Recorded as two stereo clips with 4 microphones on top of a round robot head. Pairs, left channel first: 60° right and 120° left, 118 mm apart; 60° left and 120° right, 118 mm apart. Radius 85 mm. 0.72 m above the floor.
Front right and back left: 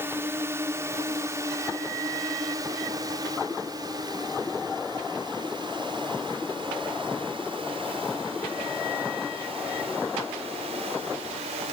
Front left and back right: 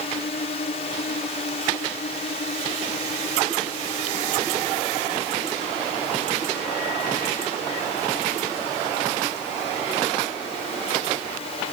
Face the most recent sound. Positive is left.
turn(degrees=90)